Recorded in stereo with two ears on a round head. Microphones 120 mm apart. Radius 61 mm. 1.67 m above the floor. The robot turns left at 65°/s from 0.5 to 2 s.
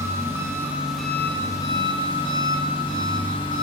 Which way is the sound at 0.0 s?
150° right.